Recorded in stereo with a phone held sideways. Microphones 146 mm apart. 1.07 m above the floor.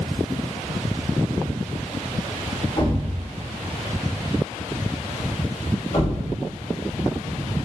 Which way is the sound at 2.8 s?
60° left (ahead or behind).